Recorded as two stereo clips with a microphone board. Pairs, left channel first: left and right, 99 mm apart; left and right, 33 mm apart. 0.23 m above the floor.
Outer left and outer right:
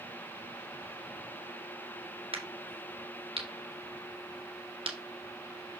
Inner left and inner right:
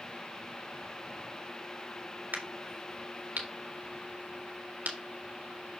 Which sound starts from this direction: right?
A crack, at 2.3 s.